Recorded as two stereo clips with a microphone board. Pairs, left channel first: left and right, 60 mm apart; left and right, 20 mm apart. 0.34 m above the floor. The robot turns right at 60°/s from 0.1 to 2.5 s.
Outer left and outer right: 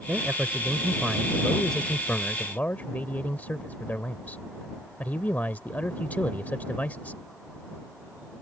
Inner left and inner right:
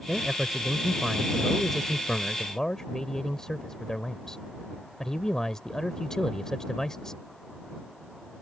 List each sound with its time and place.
0.1 s a man speaking: 80° right; by 7.2 s 65° left